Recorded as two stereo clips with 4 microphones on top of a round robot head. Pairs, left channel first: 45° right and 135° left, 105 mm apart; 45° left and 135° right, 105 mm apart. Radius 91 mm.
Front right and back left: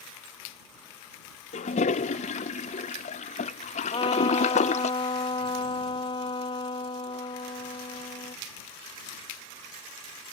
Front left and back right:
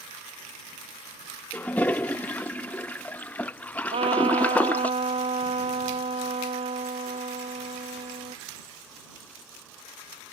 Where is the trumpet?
95° right.